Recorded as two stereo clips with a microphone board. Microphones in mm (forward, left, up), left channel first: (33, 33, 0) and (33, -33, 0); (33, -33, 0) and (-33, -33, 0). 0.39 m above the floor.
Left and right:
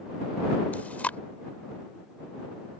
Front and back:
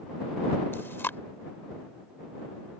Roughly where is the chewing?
Ahead left.